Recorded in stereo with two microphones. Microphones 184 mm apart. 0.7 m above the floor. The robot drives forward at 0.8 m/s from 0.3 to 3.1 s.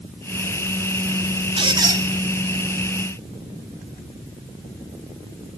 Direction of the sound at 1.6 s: 30° right (ahead or behind).